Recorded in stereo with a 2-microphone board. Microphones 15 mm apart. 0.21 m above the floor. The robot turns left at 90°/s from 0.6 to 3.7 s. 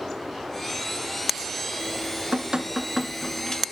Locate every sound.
1.8 s dripping: 65° right, 0.8 m; by 3.6 s 125° left, 0.8 m